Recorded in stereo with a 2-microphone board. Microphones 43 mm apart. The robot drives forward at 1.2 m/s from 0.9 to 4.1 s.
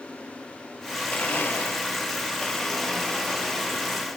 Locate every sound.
1.1 s a blender: 35° left (ahead or behind), 0.8 m; by 4.1 s 10° left (ahead or behind), 3 m